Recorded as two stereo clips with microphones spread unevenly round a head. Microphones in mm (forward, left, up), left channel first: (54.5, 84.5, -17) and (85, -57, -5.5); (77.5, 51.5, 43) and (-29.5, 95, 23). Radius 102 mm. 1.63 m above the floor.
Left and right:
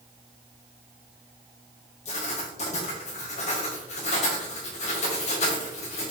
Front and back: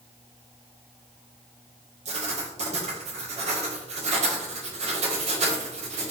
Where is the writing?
145° left, 1.7 m.